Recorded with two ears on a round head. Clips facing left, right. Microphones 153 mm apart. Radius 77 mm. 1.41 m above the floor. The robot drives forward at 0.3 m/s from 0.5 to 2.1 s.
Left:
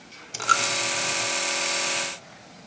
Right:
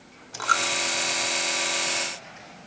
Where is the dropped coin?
30° left (ahead or behind), 1.6 m.